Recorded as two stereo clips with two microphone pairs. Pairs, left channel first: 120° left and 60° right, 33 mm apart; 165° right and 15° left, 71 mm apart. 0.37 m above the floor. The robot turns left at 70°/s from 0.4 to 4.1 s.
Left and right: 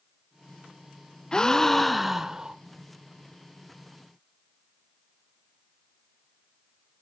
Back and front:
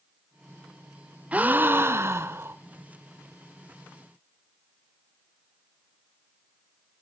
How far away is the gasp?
About 0.7 m.